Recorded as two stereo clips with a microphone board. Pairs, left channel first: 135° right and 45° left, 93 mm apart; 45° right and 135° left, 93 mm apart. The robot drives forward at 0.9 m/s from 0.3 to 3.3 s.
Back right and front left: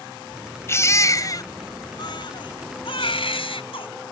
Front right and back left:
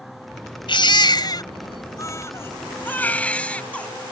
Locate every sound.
0.7 s a baby crying: 75° right; by 3.9 s 120° right